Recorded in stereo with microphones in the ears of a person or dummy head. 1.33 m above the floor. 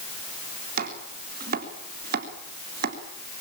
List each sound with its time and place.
0.8 s chopping: 50° right (ahead or behind), 3.5 m